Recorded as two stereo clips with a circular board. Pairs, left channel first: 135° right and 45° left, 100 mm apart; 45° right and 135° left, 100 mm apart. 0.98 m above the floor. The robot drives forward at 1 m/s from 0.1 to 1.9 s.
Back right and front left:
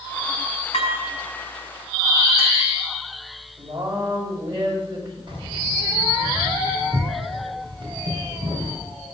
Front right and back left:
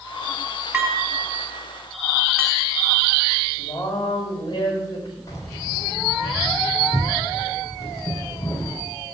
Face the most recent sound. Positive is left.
turn(degrees=10)